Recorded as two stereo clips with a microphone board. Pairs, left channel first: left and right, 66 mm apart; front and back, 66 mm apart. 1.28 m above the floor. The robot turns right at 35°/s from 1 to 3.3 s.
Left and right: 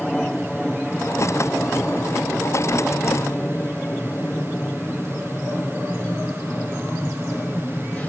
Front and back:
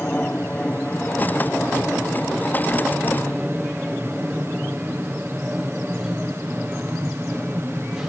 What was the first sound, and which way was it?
An aircraft, 25° left.